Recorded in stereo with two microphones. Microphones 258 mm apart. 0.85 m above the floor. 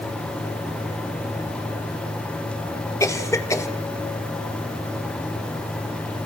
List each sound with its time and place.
3.0 s a cough: 10° left (ahead or behind), 1.7 m